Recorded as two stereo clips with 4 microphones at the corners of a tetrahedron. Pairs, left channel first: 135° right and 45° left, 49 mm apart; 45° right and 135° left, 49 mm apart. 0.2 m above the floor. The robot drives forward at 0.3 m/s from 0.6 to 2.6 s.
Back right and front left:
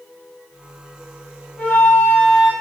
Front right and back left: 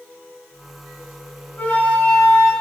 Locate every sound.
1.6 s a flute: 85° right, 0.8 m; by 2.5 s 115° right, 0.9 m